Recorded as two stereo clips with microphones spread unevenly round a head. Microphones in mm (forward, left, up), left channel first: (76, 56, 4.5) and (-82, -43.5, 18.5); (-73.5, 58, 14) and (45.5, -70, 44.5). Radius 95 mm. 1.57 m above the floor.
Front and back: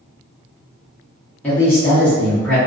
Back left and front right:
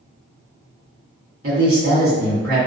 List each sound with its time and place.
1.4 s a man speaking: 50° right, 1.6 m